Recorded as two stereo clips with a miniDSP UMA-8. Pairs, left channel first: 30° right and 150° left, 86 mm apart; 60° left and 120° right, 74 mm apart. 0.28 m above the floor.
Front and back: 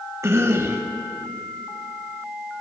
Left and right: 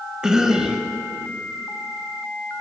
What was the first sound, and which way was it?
A cough, 165° left.